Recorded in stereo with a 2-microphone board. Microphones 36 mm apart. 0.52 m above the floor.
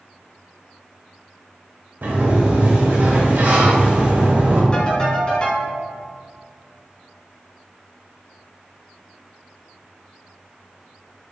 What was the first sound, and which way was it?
A sliding door, 65° right (ahead or behind).